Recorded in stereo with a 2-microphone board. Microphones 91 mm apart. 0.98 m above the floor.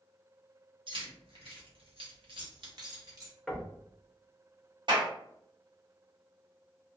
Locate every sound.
0.9 s keys jangling: 65° right (ahead or behind), 1.2 m; by 3.3 s 35° right (ahead or behind), 1.1 m
3.5 s knocking: centre (ahead or behind), 0.6 m
4.9 s a clap: 55° right (ahead or behind), 1.0 m